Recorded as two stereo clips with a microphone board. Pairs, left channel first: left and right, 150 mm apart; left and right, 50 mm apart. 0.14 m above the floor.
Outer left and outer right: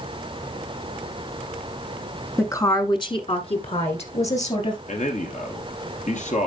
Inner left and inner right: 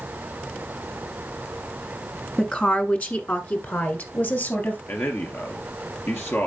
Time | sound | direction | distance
2.4 | a woman speaking | 20° left (ahead or behind) | 1.1 m
4.9 | a man speaking | 55° left (ahead or behind) | 2.5 m